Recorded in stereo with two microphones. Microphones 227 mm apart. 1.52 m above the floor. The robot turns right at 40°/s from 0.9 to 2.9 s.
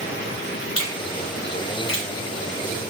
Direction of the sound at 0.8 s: 75° left (ahead or behind).